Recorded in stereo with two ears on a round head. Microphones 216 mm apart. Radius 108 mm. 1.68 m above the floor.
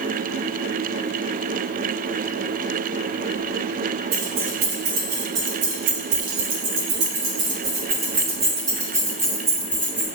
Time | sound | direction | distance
4.1 | keys jangling | 55° right (ahead or behind) | 1.6 m